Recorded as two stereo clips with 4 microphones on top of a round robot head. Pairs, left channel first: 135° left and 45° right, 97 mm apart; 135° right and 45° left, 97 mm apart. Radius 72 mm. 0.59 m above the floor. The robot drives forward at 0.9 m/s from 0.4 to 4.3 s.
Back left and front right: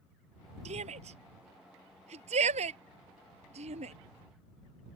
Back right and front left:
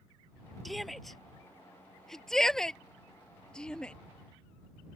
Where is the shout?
45° right; by 4.0 s 55° right.